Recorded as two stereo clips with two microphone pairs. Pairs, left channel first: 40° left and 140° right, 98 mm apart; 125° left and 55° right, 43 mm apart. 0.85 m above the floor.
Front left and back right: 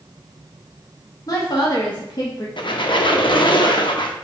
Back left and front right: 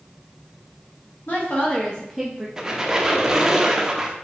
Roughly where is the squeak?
Ahead.